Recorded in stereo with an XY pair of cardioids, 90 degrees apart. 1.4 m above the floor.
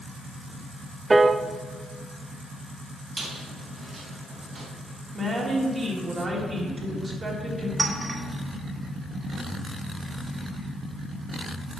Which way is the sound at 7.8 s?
25° right.